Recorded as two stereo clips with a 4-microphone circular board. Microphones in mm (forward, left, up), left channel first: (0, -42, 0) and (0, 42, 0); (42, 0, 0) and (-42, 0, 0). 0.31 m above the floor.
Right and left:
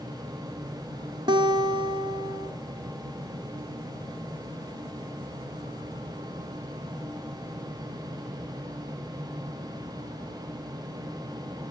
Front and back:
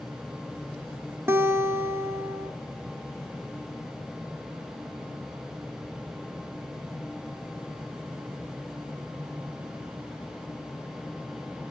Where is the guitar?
120° left, 0.6 m.